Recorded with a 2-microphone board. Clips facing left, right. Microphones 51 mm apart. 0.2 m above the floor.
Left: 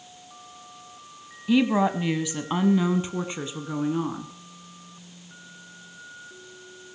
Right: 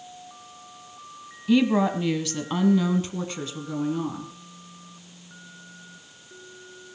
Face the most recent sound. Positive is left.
turn(degrees=20)  # may be behind; listen again after turning